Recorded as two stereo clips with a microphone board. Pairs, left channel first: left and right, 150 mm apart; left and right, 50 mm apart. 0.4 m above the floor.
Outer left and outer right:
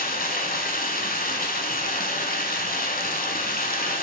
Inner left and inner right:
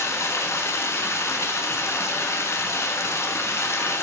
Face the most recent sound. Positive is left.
turn(degrees=75)  # may be behind; listen again after turning